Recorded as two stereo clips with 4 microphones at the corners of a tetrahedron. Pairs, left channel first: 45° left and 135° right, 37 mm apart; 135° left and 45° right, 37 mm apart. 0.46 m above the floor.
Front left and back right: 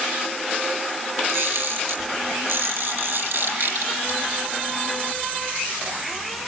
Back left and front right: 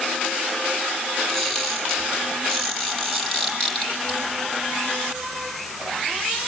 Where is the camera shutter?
150° right, 10 m.